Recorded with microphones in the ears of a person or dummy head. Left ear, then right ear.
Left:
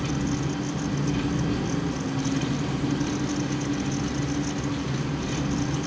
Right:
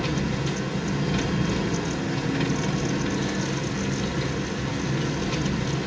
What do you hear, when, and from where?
0.0 s an engine running: 55° right (ahead or behind), 1.6 m